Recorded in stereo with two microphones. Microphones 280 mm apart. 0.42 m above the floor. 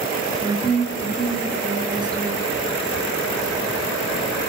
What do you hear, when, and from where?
0.4 s a woman speaking: 15° right (ahead or behind), 7 m